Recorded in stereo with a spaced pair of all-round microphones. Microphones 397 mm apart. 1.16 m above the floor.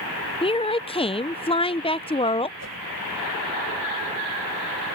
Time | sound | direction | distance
0.4 | a woman speaking | 15° left (ahead or behind) | ?
2.6 | a whoosh | 40° right (ahead or behind) | ?